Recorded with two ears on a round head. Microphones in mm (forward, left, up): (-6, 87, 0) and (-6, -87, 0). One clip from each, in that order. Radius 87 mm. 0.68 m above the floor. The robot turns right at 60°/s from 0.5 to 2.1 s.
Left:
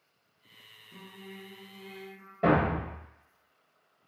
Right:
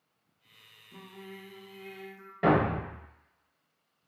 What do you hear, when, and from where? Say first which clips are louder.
0.9 s singing: right 1 dB; 140° right, 0.7 m; by 2.3 s 70° right, 0.7 m
2.4 s a thud: even; 40° right (ahead or behind), 1.3 m